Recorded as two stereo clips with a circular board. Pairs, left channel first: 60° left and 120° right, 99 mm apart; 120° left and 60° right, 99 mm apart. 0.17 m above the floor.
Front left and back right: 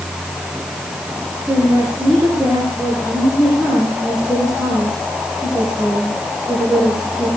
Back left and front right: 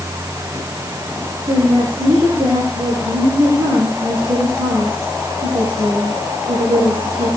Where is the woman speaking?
35° right, 8 m.